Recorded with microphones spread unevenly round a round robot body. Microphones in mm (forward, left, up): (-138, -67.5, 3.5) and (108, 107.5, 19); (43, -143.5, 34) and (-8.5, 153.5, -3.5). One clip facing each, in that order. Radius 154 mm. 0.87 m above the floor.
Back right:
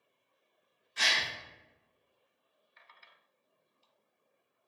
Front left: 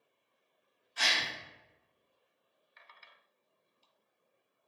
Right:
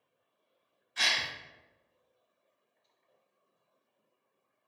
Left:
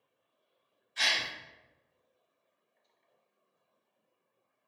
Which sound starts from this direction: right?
A gasp, at 1.0 s.